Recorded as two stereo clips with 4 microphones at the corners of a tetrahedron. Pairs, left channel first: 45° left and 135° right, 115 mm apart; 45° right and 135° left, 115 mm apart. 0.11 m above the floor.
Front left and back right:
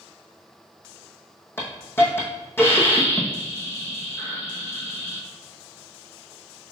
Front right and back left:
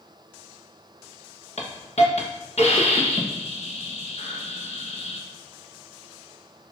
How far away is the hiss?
About 1.1 m.